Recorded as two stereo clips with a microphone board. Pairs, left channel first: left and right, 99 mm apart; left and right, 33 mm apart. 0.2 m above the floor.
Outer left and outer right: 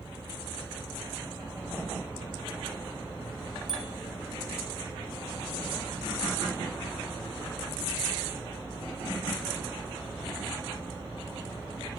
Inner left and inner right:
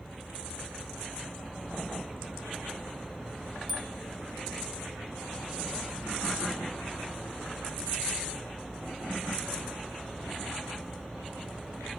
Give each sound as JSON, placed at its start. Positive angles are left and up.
{"t": 3.7, "sound": "a bicycle bell", "side_deg": -5, "distance_m": 3.0}